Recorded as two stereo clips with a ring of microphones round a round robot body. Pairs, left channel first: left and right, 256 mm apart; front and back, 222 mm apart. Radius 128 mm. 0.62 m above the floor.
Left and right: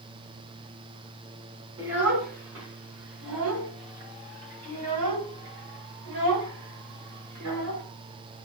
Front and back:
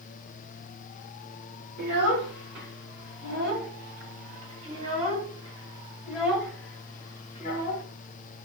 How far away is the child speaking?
About 5 m.